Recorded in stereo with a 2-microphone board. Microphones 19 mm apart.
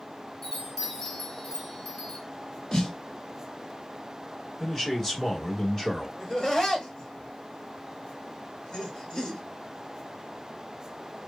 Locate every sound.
0.4 s a chime: 30° left (ahead or behind), 0.9 m
2.7 s a snare drum: 35° left (ahead or behind), 1.3 m
4.6 s a man speaking: 20° left (ahead or behind), 1.2 m
6.2 s laughter: 30° left (ahead or behind), 1.9 m